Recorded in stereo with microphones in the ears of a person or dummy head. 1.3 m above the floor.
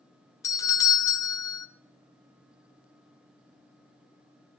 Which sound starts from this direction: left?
A doorbell, at 0.4 s.